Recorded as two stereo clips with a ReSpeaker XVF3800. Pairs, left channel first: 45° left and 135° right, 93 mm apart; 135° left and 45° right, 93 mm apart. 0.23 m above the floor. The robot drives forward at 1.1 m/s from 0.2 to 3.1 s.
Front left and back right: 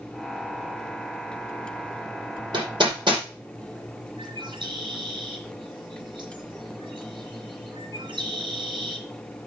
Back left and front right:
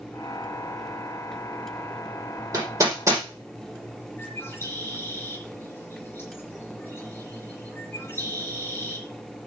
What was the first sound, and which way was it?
Hammering, 100° right.